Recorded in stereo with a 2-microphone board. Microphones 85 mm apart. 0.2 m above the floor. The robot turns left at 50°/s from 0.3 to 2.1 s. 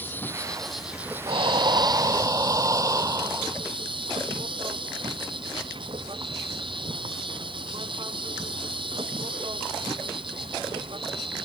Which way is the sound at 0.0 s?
20° left.